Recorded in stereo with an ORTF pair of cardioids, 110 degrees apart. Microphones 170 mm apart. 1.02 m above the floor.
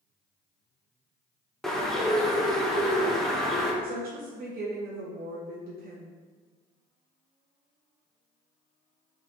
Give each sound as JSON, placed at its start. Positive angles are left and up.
{"t": 1.6, "sound": "a bird", "azimuth_deg": 0, "distance_m": 0.7}
{"t": 3.8, "sound": "a woman speaking", "azimuth_deg": -65, "distance_m": 0.9}